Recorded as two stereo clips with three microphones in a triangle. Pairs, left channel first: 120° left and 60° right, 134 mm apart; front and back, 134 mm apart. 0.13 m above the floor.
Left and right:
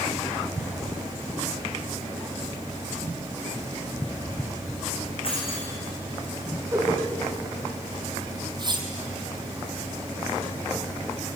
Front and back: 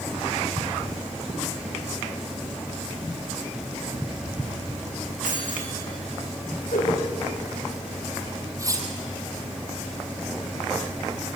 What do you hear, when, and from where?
5.2 s keys jangling: 165° left, 5 m
6.7 s a whoosh: 15° left, 9.5 m
8.6 s cutlery clinking: 115° right, 3 m